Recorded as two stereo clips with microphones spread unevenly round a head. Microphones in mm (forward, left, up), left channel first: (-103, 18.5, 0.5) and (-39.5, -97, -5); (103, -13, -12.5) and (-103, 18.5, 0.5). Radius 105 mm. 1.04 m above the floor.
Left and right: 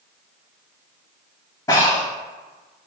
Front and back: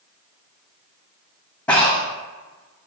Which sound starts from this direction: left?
Breathing, at 1.7 s.